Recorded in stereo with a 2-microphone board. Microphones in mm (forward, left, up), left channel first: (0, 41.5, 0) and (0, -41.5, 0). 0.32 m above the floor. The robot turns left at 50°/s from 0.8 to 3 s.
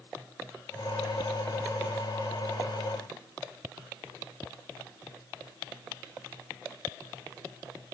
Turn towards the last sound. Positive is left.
No sound to turn to.